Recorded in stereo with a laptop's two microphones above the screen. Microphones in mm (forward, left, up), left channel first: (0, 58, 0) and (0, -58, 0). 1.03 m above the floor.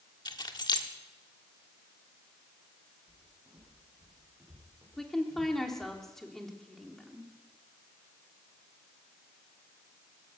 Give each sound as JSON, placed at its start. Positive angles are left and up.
{"t": 0.2, "sound": "keys jangling", "side_deg": 40, "distance_m": 1.4}
{"t": 3.1, "sound": "footsteps", "side_deg": -30, "distance_m": 9.0}
{"t": 5.0, "sound": "a woman speaking", "side_deg": 5, "distance_m": 2.5}